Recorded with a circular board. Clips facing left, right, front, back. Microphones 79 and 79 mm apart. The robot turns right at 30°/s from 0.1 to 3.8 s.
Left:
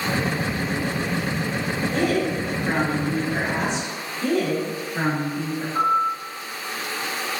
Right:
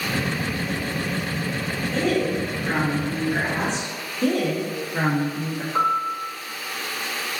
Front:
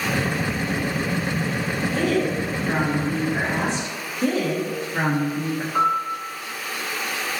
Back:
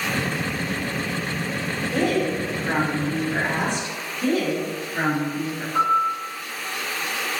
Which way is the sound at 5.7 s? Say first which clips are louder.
Left 1 dB, back 2 dB; 75° right.